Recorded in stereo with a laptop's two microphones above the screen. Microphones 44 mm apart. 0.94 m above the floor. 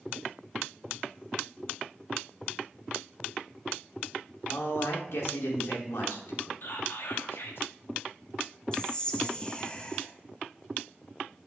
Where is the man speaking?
75° left (ahead or behind), 2.5 m.